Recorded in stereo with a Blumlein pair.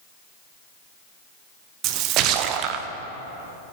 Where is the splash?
40° right, 0.6 m.